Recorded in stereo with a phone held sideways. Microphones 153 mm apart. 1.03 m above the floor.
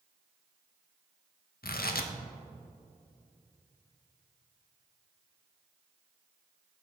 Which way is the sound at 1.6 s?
80° left.